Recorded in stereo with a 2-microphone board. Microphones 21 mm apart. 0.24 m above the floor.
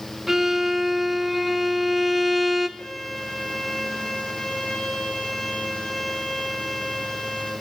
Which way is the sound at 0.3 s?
15° right (ahead or behind).